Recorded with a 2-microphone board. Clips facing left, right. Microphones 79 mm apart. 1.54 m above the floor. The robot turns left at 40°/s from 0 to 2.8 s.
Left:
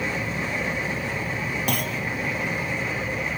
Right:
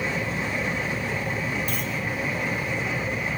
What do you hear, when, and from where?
1.7 s a clunk: 70° left (ahead or behind), 1.3 m; by 2.0 s 55° left (ahead or behind), 1.3 m